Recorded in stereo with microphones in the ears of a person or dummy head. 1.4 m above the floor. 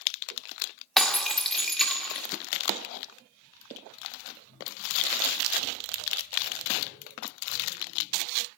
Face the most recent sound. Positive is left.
turn(degrees=-5)  # may be behind; listen again after turning